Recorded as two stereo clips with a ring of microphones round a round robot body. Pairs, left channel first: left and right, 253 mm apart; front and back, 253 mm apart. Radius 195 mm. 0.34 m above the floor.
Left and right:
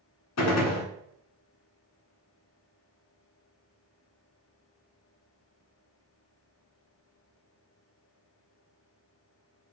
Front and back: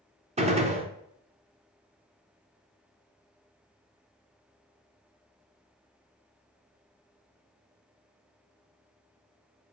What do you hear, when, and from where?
0.4 s a gunshot: 115° left, 1.0 m